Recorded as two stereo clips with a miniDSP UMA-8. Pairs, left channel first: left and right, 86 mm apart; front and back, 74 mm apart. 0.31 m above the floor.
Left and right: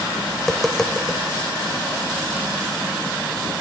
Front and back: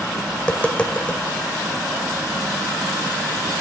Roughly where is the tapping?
Ahead.